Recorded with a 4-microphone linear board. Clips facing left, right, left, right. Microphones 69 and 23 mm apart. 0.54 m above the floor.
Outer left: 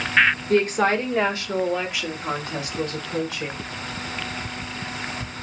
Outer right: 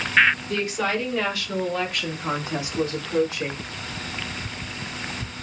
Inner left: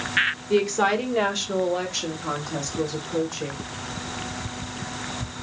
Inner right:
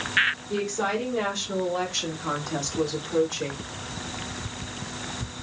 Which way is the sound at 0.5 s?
50° left (ahead or behind).